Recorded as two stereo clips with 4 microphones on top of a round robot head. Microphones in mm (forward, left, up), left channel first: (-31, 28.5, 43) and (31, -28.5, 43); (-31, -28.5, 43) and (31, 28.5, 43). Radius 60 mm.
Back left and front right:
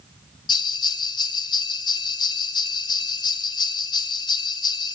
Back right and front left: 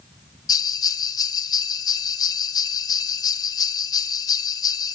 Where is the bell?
175° left, 0.9 m.